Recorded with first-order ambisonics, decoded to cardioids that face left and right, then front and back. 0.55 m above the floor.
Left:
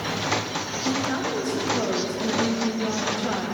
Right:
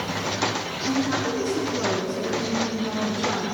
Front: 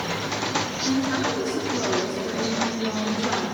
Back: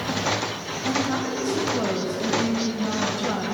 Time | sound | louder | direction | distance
0.8 | a woman speaking | right 1 dB, back 4 dB | 135° left | 3 m